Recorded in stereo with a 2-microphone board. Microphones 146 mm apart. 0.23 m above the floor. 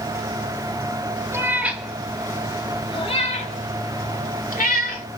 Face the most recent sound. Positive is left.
turn(degrees=75)  # may be behind; listen again after turning